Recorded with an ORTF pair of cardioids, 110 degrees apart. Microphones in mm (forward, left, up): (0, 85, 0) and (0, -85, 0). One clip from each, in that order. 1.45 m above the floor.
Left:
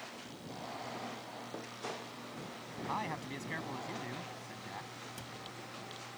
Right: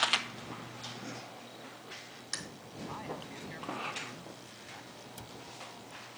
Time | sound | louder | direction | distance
2.9 | a man speaking | left 4 dB | 45° left | ?
5.2 | a cupboard door | left 1 dB | 5° right | ?